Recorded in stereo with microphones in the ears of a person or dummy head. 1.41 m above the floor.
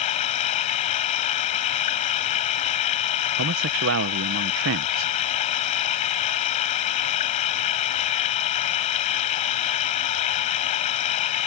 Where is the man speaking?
75° right (ahead or behind).